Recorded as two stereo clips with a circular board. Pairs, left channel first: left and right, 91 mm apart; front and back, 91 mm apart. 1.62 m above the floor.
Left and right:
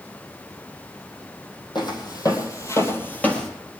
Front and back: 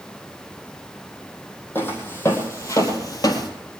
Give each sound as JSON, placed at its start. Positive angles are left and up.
{"t": 1.8, "sound": "footsteps", "azimuth_deg": 65, "distance_m": 3.5}